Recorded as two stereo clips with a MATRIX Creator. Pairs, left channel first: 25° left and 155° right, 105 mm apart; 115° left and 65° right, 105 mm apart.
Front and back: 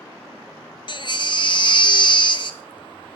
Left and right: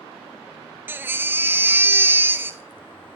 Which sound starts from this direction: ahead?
A baby crying, at 0.9 s.